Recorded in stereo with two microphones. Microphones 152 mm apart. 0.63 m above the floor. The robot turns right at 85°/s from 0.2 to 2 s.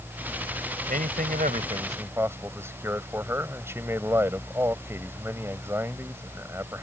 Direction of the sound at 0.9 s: 110° right.